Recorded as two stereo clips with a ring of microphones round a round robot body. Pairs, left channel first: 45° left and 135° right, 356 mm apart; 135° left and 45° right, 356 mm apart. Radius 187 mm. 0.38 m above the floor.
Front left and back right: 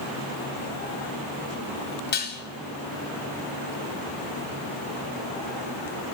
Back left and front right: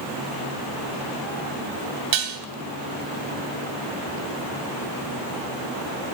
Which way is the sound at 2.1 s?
20° right.